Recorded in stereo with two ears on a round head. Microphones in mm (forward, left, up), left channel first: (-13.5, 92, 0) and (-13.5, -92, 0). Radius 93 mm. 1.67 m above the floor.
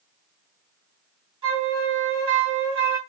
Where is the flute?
25° right (ahead or behind), 2.5 m.